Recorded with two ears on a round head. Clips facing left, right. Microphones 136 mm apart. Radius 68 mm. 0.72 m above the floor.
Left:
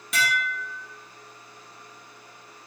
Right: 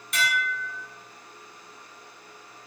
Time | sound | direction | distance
0.1 | dishes clattering | 65° left (ahead or behind) | 0.9 m